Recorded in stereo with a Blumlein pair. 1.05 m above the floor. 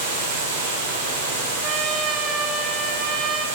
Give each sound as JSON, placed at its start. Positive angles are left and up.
{"t": 0.0, "sound": "running water", "azimuth_deg": -50, "distance_m": 3.0}
{"t": 1.6, "sound": "a trumpet", "azimuth_deg": -30, "distance_m": 1.1}